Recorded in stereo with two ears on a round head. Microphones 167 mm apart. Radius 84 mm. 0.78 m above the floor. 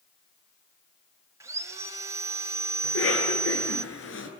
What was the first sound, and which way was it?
Sawing, 15° right (ahead or behind).